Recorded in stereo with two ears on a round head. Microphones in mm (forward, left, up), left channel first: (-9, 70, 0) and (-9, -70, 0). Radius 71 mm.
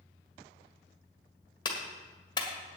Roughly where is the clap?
Left.